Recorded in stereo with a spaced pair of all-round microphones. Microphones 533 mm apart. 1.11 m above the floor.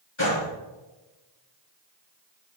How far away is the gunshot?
About 3 m.